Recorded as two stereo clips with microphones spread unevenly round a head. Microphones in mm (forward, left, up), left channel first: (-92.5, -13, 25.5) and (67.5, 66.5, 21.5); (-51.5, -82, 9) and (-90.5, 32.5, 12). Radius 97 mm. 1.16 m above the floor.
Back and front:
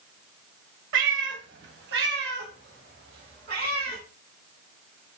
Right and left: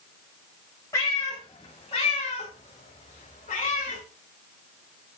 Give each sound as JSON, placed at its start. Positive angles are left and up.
{"t": 0.9, "sound": "a cat meowing", "azimuth_deg": 0, "distance_m": 1.6}